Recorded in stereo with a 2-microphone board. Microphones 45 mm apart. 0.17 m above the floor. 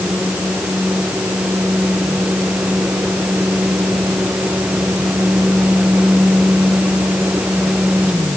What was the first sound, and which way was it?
Only background noise.